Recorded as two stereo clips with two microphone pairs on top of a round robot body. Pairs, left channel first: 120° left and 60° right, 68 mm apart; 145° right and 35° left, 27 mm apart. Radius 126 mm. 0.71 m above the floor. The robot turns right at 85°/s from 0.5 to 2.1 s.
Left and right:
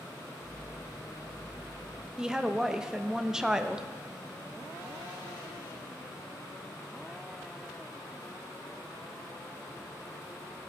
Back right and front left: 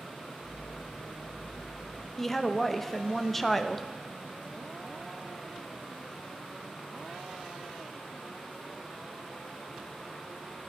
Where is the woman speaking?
95° right, 0.8 m.